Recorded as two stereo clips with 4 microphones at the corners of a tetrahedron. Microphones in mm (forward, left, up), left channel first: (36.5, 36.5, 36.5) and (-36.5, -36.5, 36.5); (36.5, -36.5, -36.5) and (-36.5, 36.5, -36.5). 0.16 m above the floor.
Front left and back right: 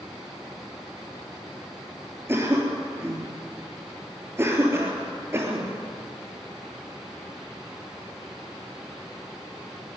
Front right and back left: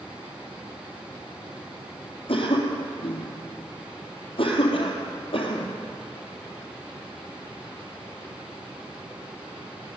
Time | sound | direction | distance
2.3 | a cough | 70° right | 3 m